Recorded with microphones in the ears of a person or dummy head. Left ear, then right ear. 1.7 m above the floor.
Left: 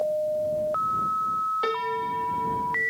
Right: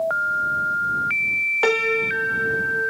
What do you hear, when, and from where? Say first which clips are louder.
1.6 s a piano: right 7 dB; 30° right (ahead or behind)